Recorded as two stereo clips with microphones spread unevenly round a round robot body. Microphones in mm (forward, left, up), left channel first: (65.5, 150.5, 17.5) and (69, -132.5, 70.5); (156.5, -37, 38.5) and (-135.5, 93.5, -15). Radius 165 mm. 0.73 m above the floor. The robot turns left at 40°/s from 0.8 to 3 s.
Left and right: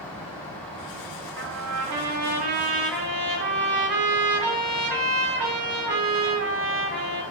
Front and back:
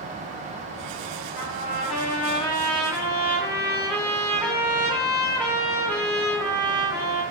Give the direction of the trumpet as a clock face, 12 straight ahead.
2 o'clock.